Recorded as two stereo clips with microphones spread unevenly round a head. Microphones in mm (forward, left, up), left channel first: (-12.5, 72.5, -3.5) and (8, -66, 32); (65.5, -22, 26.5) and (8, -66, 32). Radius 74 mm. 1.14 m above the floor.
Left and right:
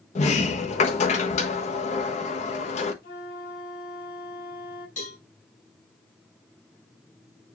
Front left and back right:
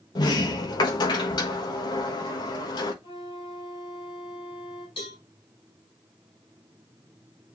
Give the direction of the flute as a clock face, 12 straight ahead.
10 o'clock.